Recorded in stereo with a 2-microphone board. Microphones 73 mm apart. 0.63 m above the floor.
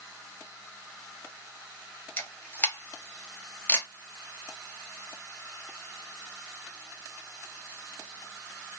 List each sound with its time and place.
2.2 s a camera shutter: 25° left (ahead or behind), 0.9 m